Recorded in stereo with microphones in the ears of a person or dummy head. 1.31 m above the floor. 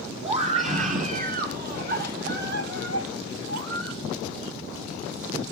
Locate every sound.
0.2 s a scream: 35° right (ahead or behind), 4 m; by 4.0 s 80° right, 3 m